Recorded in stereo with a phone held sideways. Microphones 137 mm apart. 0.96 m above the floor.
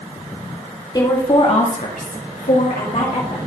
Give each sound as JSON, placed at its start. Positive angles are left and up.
{"t": 0.9, "sound": "a woman speaking", "side_deg": 30, "distance_m": 2.0}